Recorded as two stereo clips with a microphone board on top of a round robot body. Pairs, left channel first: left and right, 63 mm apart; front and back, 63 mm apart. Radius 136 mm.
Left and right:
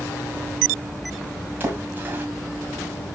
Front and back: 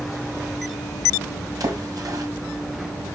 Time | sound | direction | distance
1.6 | a splash | 155° right | 2 m